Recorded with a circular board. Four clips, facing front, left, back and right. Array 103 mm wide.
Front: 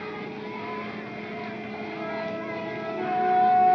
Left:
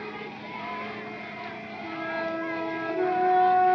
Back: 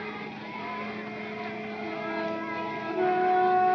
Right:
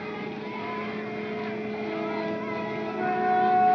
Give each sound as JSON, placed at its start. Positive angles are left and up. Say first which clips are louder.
{"t": 1.8, "sound": "a flute", "louder": "even, back 1 dB", "azimuth_deg": 90, "distance_m": 7.0}